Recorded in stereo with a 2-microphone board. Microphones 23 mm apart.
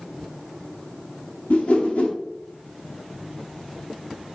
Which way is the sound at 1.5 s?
60° left (ahead or behind).